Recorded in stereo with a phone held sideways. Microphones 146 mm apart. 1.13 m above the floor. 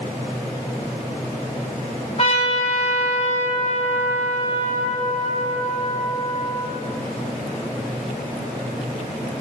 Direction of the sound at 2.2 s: 50° left (ahead or behind).